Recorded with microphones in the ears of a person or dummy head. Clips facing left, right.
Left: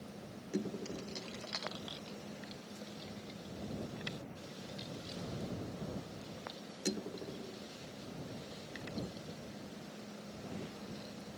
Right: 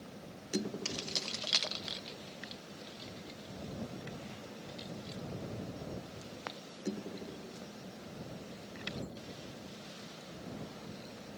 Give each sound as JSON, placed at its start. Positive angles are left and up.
{"t": 0.8, "sound": "keys jangling", "side_deg": -85}